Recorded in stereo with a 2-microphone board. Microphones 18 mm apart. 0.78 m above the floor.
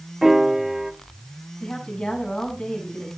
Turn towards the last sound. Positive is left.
turn(degrees=50)  # may be behind; listen again after turning